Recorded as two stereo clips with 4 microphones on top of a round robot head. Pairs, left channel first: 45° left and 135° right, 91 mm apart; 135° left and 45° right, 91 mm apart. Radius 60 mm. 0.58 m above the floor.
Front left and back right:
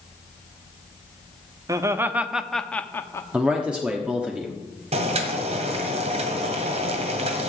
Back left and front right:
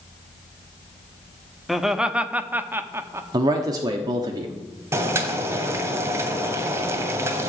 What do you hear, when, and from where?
1.7 s laughter: 135° right, 1.1 m; by 3.2 s straight ahead, 1.2 m
3.3 s a man speaking: 60° right, 1.2 m
4.9 s boiling: 110° right, 1.9 m